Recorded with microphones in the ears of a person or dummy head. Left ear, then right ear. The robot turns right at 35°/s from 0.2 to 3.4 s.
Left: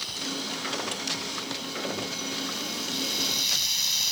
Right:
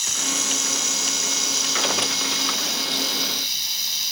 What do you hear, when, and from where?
0.0 s running water: 125° right; by 4.1 s 15° right